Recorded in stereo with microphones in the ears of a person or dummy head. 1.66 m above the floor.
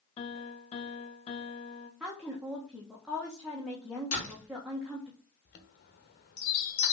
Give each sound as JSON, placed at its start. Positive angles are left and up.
{"t": 0.2, "sound": "a piano", "side_deg": 35, "distance_m": 1.2}
{"t": 2.0, "sound": "a woman speaking", "side_deg": -5, "distance_m": 1.4}
{"t": 4.1, "sound": "a door slam", "side_deg": 45, "distance_m": 3.0}
{"t": 5.5, "sound": "a chime", "side_deg": 60, "distance_m": 1.5}